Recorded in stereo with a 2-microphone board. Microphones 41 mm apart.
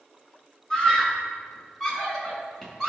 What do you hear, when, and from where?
0.7 s a scream: 15° left (ahead or behind), 3.5 m; by 2.9 s 5° left (ahead or behind), 4.5 m